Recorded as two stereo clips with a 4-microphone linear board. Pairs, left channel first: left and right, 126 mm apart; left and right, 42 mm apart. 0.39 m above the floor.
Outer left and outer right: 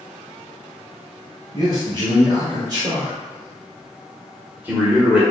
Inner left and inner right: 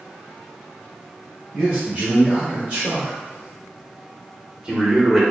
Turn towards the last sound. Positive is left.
turn(degrees=-10)  # may be behind; listen again after turning